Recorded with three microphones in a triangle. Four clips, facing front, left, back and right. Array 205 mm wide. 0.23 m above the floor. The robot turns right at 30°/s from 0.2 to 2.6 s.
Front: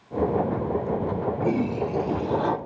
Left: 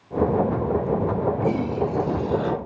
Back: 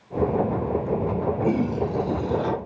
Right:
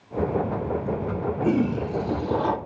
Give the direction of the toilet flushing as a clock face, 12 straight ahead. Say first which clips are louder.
Even, even; 3 o'clock.